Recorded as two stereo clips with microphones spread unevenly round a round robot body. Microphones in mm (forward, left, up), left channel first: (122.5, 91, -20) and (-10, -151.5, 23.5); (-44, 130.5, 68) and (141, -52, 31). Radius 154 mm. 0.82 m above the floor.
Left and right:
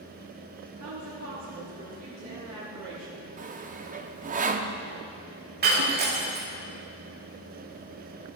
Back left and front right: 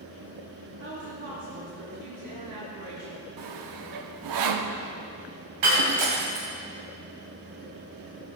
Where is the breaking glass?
65° right, 1.9 m.